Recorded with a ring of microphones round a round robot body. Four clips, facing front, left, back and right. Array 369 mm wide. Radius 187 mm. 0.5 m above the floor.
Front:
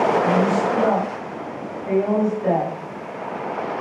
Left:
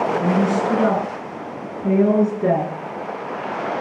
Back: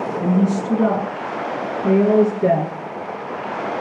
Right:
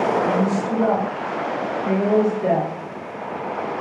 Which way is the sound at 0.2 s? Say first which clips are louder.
Left 1 dB, front 1 dB; 155° left.